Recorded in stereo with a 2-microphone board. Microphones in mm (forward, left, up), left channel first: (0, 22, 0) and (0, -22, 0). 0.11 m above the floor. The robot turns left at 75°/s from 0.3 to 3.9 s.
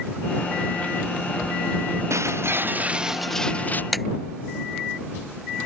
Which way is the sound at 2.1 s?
95° right.